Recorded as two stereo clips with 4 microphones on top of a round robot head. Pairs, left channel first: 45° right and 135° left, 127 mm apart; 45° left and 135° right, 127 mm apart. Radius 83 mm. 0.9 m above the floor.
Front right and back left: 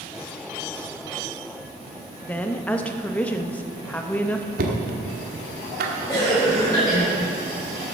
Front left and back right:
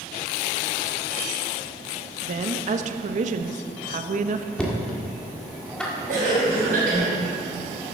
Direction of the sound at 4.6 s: 125° left.